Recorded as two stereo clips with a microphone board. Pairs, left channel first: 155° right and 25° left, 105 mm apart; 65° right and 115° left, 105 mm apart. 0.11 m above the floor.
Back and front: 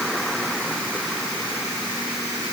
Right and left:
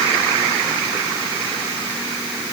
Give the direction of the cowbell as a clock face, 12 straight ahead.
No cowbell in this recording.